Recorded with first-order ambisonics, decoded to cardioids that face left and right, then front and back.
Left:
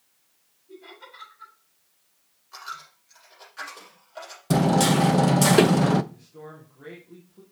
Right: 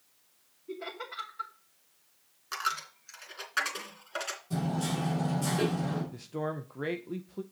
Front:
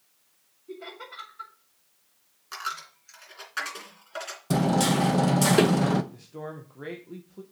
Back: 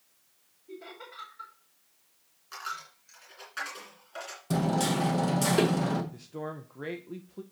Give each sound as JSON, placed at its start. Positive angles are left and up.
{"t": 0.7, "sound": "laughter", "azimuth_deg": -75, "distance_m": 2.5}
{"t": 2.5, "sound": "a dropped coin", "azimuth_deg": -70, "distance_m": 2.5}
{"t": 4.5, "sound": "hammering", "azimuth_deg": 75, "distance_m": 0.6}
{"t": 6.1, "sound": "a man speaking", "azimuth_deg": -100, "distance_m": 0.6}